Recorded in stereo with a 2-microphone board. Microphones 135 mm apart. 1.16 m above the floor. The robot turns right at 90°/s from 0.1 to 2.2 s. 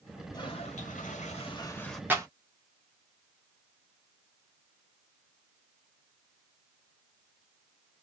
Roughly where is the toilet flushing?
Ahead left.